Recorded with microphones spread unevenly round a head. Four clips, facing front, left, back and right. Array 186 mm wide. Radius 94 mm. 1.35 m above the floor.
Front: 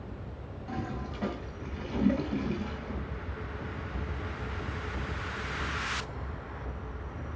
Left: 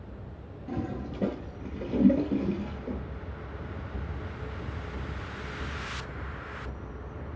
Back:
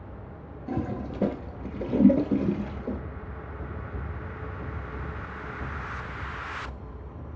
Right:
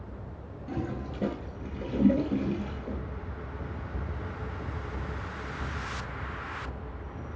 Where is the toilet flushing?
Straight behind, 2 m.